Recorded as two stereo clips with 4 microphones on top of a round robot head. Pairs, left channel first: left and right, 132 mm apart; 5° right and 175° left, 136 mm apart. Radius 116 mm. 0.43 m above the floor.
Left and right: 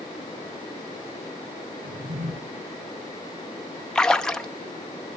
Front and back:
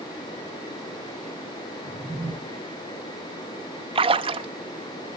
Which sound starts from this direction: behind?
A splash, at 4.0 s.